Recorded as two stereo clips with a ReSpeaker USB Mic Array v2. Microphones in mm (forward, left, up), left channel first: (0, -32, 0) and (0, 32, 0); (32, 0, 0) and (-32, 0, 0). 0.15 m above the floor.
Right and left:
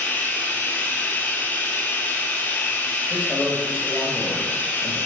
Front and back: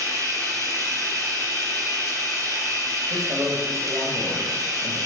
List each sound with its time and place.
0.0 s running water: 150° right, 1.3 m
3.1 s a man speaking: 160° left, 3 m